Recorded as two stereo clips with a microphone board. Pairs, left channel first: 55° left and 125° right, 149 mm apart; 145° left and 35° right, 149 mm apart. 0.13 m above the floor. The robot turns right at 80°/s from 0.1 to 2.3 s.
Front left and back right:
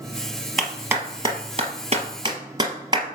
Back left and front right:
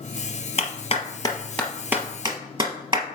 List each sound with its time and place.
0.6 s a clap: 145° left, 1.6 m; by 3.0 s 80° right, 1.6 m